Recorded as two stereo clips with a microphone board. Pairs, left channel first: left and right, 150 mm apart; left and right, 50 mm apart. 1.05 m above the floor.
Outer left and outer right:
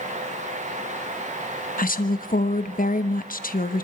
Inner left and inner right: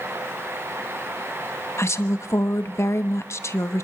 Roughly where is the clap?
No clap in this recording.